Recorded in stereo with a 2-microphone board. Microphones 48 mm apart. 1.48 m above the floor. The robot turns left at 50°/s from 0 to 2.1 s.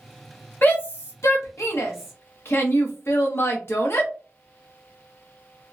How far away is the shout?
About 0.8 m.